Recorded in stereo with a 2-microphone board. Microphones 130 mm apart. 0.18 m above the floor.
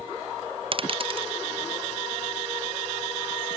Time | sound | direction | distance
0.7 | a dropped coin | 45° right (ahead or behind) | ?